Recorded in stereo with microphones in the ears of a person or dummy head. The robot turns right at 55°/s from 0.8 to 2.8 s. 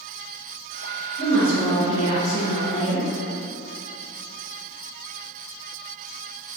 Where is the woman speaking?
85° right, 0.7 m; by 3.1 s 5° left, 0.7 m.